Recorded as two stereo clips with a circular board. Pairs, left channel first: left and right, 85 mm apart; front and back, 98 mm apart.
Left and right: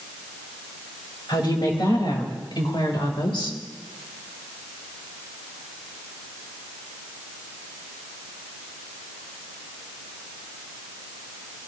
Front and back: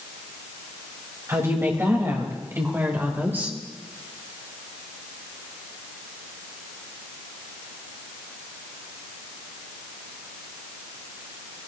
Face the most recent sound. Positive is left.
turn(degrees=110)